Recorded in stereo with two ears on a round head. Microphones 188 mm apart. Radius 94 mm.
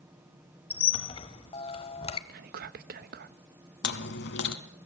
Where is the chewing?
55° left (ahead or behind), 1.5 m.